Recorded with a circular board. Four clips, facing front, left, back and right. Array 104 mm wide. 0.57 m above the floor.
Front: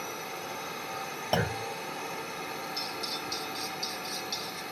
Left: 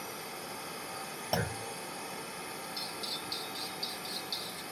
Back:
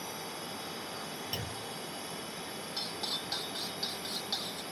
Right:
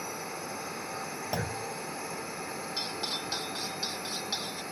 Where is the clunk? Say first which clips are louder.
Left 1 dB, front 12 dB; 5° left.